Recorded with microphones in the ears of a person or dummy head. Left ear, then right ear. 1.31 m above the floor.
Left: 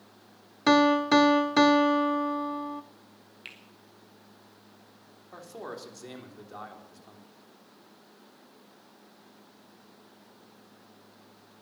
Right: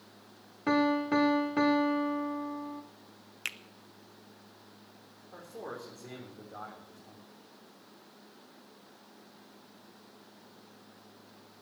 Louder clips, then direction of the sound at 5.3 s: Left 2 dB; 85° left.